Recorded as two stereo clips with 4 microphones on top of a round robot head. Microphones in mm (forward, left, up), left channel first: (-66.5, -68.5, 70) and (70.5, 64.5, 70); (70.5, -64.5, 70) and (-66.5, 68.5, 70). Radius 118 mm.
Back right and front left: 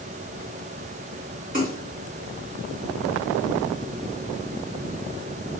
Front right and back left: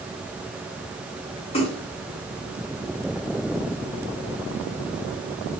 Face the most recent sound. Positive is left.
turn(degrees=10)